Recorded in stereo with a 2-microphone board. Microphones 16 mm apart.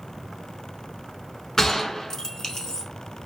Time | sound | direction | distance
1.6 | a gunshot | 25° left (ahead or behind) | 0.7 m